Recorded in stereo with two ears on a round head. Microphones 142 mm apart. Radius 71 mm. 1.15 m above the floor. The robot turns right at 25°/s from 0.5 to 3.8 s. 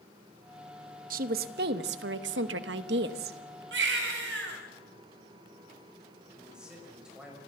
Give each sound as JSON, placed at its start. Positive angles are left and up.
{"t": 1.1, "sound": "a woman speaking", "azimuth_deg": -125, "distance_m": 1.1}
{"t": 3.7, "sound": "a baby crying", "side_deg": -80, "distance_m": 4.5}
{"t": 6.4, "sound": "a man speaking", "side_deg": -5, "distance_m": 6.0}